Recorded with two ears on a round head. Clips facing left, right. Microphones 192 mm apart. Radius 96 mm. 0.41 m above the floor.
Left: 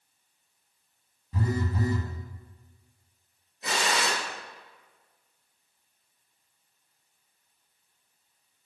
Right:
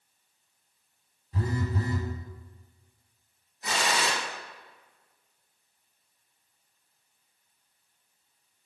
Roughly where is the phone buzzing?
Left.